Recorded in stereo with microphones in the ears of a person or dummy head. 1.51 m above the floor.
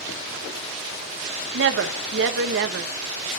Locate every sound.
1.5 s a woman speaking: 70° right (ahead or behind), 1.4 m